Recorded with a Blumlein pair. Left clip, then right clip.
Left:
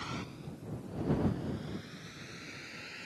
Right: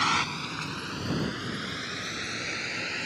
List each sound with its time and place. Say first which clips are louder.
0.0 s a vehicle: right 17 dB; 55° right; by 3.1 s 35° right